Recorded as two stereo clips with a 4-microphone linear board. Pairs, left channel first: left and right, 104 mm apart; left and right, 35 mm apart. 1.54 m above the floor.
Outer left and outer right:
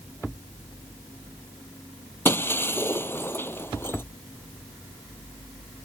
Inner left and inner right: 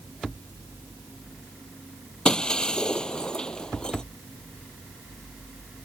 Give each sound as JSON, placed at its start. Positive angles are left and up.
{"t": 2.2, "sound": "breaking glass", "side_deg": 25}